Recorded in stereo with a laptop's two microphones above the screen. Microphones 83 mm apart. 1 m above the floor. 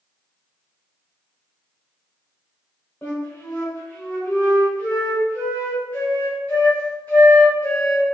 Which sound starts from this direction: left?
A flute, at 3.0 s.